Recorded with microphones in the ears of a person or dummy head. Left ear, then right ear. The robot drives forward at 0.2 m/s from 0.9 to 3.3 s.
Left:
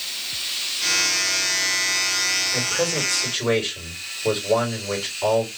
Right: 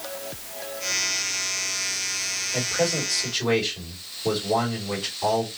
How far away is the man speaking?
About 3 m.